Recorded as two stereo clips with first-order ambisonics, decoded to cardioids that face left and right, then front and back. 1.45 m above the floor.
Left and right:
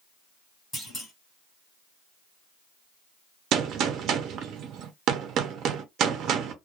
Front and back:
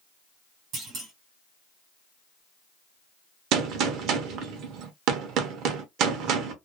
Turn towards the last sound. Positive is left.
turn(degrees=-140)